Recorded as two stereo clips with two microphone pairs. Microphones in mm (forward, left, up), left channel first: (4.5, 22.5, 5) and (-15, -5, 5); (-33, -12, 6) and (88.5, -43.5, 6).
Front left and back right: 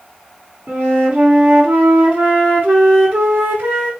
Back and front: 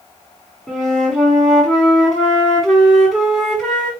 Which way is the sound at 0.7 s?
105° right.